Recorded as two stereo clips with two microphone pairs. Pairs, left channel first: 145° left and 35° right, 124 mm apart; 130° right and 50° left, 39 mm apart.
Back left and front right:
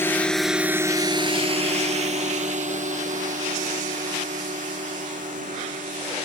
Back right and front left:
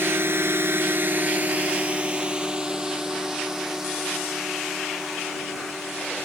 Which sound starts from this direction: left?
A drone, at 0.0 s.